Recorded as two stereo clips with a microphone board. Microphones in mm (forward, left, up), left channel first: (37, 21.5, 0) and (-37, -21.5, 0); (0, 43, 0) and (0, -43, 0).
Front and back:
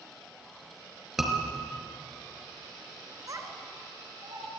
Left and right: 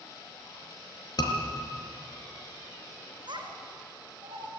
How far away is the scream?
About 4.5 m.